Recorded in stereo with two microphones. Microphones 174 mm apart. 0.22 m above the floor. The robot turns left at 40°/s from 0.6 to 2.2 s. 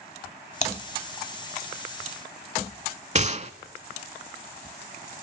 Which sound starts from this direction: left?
Typing on a keyboard, at 0.6 s.